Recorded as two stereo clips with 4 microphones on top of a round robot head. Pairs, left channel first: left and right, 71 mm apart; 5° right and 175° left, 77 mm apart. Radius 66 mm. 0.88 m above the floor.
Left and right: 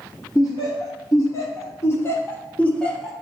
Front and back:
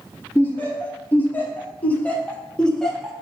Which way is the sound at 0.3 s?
60° left.